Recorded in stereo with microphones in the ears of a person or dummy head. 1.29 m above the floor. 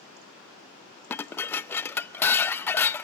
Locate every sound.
1.1 s dishes clattering: 10° left (ahead or behind), 0.6 m